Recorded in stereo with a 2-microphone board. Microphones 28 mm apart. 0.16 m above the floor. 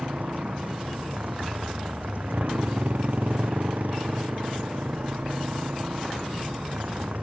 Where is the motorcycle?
60° right (ahead or behind).